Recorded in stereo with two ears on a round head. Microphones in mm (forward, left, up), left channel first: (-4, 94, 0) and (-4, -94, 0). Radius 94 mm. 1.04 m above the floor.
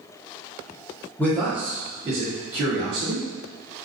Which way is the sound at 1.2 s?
10° left (ahead or behind).